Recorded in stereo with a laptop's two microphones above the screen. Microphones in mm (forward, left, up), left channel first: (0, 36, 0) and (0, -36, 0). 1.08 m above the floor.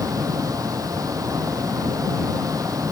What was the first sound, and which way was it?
A fan, 50° right (ahead or behind).